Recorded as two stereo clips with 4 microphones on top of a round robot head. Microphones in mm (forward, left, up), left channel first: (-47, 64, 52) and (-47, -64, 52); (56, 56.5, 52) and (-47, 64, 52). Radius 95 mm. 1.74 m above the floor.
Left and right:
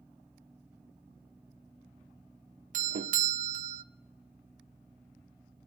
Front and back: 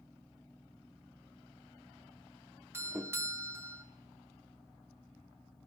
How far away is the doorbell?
About 0.6 m.